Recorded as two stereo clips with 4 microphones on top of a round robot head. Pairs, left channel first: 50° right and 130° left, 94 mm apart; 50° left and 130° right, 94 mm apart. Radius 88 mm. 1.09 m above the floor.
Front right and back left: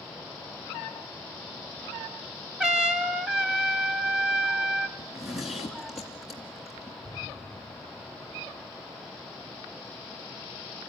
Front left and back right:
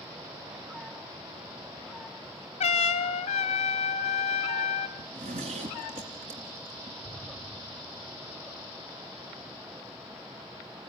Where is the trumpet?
50° left, 0.7 m.